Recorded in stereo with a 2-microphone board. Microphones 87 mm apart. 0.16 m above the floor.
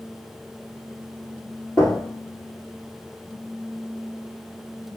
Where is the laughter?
I don't hear laughter.